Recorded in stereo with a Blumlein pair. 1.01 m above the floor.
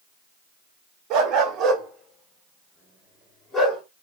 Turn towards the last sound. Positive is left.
turn(degrees=10)